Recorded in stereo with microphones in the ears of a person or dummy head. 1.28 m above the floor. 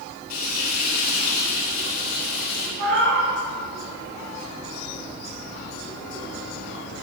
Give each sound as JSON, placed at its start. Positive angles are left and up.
{"t": 0.3, "sound": "frying", "side_deg": 50, "distance_m": 3.0}
{"t": 2.8, "sound": "a cat meowing", "side_deg": -70, "distance_m": 3.0}